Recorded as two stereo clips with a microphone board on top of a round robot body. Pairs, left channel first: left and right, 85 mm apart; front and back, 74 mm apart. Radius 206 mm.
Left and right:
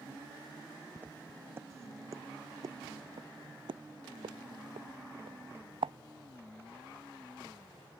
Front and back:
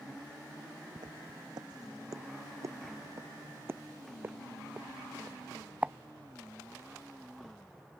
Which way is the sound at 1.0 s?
160° right.